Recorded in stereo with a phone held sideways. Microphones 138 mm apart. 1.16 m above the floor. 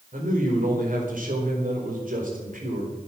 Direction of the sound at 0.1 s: 80° right.